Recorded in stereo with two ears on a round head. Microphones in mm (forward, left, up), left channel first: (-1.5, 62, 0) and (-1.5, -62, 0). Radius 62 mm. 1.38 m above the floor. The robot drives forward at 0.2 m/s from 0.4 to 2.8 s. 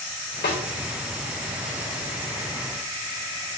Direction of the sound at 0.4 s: 80° left.